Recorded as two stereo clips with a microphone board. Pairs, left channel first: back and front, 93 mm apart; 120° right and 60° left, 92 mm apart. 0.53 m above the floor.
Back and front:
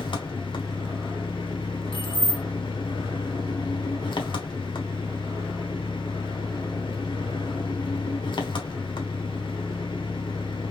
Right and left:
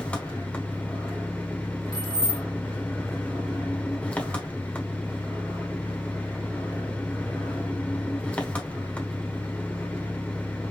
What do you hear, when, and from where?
0.0 s an engine running: 165° left, 1.3 m
1.9 s keys jangling: 170° right, 2 m